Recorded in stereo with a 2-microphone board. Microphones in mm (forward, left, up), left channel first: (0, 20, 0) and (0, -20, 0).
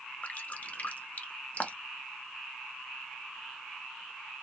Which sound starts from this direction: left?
Dripping, at 0.2 s.